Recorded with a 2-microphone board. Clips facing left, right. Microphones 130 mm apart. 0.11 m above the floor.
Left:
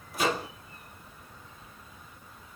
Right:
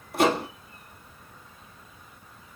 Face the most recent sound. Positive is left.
turn(degrees=-60)  # may be behind; listen again after turning